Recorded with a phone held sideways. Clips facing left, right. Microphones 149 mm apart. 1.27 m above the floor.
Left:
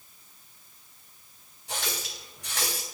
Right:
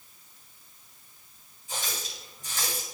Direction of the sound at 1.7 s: 70° left (ahead or behind).